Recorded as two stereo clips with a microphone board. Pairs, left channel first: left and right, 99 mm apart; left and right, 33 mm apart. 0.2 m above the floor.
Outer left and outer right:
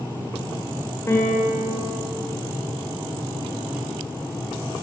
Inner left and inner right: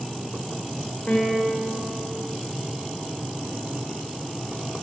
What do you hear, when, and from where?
1.1 s a piano: 25° left (ahead or behind), 6.5 m